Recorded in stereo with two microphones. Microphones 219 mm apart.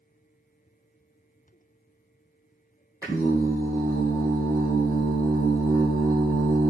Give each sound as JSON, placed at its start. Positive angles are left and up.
{"t": 3.0, "sound": "singing", "side_deg": -15, "distance_m": 1.8}